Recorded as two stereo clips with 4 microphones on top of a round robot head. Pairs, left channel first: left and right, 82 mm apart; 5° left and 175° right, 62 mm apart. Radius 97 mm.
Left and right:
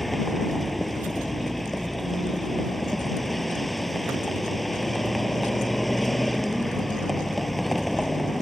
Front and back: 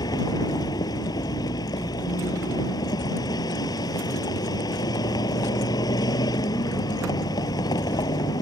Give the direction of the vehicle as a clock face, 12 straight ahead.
12 o'clock.